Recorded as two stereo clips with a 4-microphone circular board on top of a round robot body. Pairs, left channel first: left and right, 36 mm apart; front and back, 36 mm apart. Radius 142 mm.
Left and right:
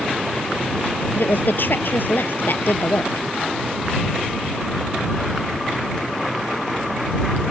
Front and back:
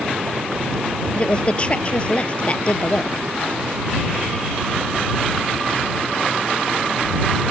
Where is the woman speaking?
60° left.